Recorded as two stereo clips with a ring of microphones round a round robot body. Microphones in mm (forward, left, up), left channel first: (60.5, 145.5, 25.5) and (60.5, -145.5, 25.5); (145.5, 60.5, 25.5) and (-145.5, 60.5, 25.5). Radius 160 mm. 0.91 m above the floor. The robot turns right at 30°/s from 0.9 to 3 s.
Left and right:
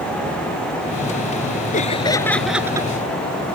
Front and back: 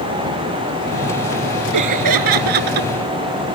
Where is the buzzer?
No buzzer in this recording.